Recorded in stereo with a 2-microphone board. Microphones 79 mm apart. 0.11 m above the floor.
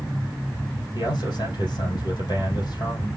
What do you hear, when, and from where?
0.9 s a man speaking: 65° left (ahead or behind), 3 m